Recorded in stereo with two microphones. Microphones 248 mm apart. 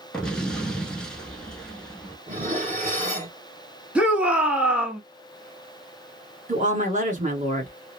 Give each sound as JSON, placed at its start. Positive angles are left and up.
{"t": 0.1, "sound": "an explosion", "side_deg": 5, "distance_m": 0.8}
{"t": 2.3, "sound": "dishes clattering", "side_deg": -30, "distance_m": 1.1}
{"t": 4.0, "sound": "a shout", "side_deg": -5, "distance_m": 1.1}
{"t": 6.5, "sound": "a woman speaking", "side_deg": -30, "distance_m": 1.4}